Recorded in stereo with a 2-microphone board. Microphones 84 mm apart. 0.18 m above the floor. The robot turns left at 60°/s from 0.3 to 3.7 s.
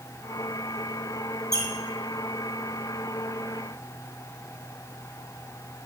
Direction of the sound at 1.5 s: 50° left (ahead or behind).